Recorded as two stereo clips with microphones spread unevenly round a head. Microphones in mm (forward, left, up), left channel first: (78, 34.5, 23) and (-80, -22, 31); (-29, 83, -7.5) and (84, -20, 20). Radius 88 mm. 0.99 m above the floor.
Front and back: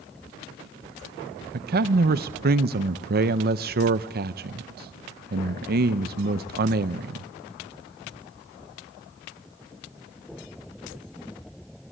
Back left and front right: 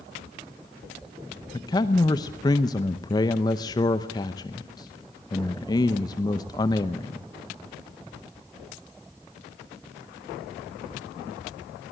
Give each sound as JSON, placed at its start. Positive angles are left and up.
{"t": 1.5, "sound": "a man speaking", "azimuth_deg": -170, "distance_m": 0.7}